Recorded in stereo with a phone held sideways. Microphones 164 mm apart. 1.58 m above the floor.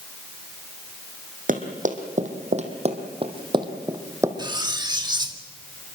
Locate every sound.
1.5 s running footsteps: 55° right (ahead or behind), 2.5 m; by 4.3 s 15° right (ahead or behind), 2.5 m
4.4 s cutlery clinking: 25° right (ahead or behind), 1.5 m